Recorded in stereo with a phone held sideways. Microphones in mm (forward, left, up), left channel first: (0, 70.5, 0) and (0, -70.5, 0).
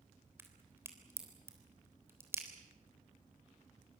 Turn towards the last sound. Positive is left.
turn(degrees=-15)  # may be behind; listen again after turning